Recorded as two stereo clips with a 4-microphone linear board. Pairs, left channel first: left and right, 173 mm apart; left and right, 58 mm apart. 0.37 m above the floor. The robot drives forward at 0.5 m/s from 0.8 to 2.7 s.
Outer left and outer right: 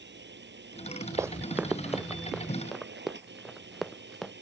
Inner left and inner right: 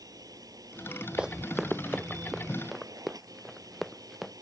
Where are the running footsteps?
15° right (ahead or behind); by 4.3 s centre (ahead or behind).